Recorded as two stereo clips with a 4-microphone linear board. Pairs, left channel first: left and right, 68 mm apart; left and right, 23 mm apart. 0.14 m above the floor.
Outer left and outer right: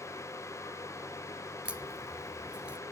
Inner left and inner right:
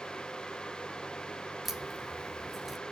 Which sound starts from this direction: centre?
A crack, at 1.6 s.